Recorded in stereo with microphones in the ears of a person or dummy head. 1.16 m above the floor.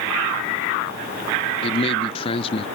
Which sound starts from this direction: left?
A man speaking, at 1.6 s.